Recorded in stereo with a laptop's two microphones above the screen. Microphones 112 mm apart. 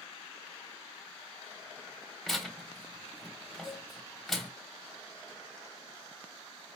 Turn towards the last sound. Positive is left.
turn(degrees=65)  # may be behind; listen again after turning